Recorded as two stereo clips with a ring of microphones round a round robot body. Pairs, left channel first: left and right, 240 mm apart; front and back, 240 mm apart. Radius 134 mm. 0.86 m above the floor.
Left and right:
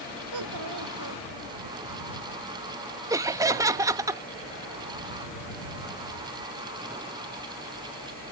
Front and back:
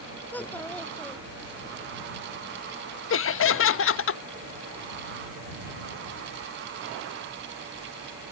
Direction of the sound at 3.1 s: 15° right.